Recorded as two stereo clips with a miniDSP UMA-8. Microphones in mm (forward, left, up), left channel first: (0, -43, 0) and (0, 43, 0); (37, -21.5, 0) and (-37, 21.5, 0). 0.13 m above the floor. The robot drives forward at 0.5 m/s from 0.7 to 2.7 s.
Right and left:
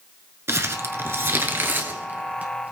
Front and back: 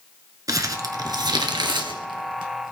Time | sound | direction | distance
0.5 | crumpling | 135° left | 1.1 m